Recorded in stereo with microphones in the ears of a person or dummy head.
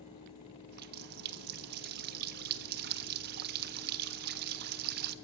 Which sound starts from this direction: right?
A running tap, at 0.7 s.